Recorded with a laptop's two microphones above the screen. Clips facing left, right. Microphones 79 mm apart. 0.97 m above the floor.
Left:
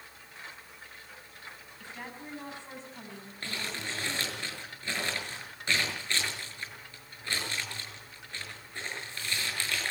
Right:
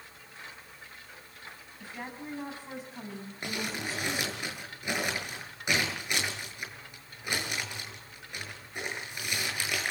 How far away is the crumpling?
About 7 m.